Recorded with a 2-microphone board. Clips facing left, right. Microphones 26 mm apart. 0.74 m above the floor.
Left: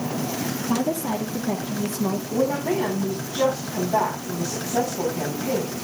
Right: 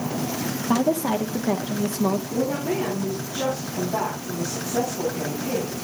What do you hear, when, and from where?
0.7 s a woman speaking: 50° right (ahead or behind), 1.1 m
2.3 s a woman speaking: 30° left (ahead or behind), 3.5 m